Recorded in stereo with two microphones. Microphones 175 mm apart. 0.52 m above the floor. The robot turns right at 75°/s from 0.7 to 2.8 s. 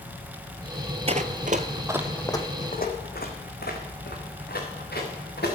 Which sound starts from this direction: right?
Running footsteps, at 1.1 s.